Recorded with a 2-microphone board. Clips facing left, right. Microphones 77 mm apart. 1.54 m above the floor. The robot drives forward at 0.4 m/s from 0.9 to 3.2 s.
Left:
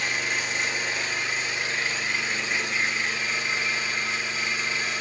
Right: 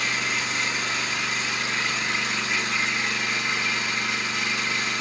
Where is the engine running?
75° right (ahead or behind), 5.5 m; by 5.0 s 70° right (ahead or behind), 5.5 m.